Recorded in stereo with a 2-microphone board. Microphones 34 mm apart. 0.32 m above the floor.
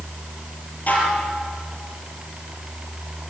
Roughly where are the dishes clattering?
Left.